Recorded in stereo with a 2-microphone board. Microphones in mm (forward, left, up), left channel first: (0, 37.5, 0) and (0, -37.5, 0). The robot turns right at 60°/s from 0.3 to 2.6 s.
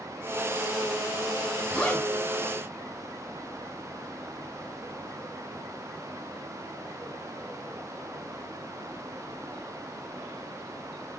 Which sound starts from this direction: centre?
A zipper, at 1.7 s.